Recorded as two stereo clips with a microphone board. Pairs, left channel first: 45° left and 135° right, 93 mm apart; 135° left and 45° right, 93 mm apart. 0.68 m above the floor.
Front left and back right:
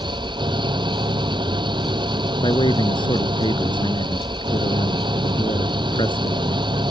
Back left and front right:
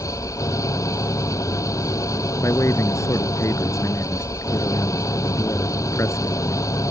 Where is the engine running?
170° right.